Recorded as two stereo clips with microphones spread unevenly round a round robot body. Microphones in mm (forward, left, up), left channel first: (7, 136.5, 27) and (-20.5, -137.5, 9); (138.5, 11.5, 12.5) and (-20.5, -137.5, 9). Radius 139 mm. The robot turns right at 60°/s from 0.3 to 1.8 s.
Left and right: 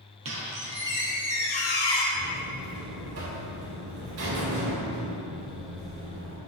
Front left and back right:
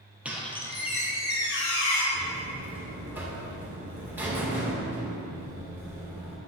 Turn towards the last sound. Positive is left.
turn(degrees=-55)